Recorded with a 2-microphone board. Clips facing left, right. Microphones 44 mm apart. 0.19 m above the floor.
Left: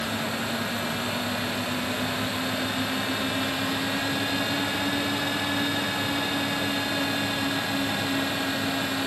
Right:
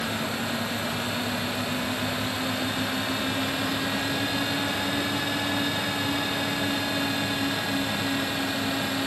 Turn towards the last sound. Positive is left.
No sound to turn to.